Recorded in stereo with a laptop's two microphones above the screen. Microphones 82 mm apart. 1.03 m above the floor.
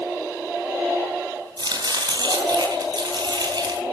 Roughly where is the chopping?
Right.